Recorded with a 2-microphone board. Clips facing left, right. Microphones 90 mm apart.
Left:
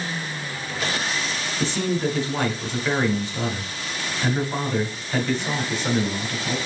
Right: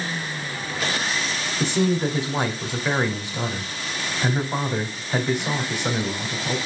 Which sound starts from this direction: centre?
A man speaking, at 1.6 s.